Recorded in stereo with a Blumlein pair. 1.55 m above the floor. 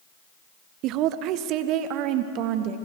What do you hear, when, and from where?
0.8 s a woman speaking: 40° right, 1.2 m